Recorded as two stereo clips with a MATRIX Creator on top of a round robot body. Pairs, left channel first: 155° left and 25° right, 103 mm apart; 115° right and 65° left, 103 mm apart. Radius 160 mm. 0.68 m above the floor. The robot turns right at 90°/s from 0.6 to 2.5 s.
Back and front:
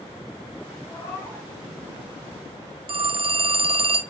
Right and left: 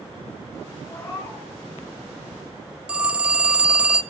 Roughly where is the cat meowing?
Behind.